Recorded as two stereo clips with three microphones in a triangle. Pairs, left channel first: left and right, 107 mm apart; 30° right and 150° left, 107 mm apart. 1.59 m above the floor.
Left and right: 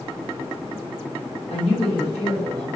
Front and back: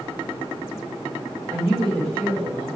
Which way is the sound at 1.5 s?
90° left.